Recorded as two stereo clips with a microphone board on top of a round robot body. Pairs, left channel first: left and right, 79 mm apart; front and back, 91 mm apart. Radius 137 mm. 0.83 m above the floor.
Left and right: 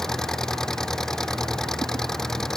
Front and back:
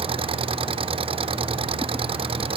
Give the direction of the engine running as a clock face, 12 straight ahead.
6 o'clock.